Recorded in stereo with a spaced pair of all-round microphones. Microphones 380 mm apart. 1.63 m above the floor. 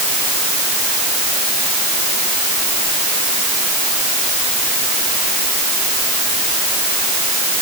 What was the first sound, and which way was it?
Only background noise.